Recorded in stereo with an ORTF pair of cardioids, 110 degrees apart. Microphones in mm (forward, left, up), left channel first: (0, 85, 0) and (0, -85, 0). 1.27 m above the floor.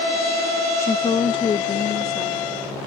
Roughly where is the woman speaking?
Ahead.